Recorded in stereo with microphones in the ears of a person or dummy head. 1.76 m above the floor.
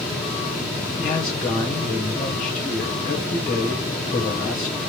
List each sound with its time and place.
1.0 s a man speaking: 10° left (ahead or behind), 0.7 m